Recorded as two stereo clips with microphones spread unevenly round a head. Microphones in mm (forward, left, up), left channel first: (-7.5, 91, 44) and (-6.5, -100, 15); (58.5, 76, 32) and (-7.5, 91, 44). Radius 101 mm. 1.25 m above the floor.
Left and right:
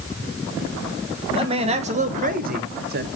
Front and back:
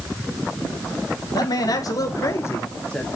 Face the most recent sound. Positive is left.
turn(degrees=-95)